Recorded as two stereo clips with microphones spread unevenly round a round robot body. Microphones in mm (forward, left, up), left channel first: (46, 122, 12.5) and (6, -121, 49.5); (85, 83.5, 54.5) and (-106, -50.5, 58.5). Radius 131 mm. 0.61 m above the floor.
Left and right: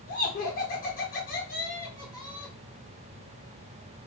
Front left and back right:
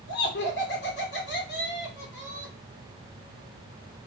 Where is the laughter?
50° left, 1.6 m.